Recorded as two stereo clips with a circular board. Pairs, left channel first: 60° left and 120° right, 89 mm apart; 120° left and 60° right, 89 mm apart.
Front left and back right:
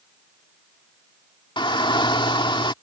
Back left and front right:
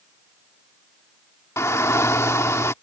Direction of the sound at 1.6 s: 65° left.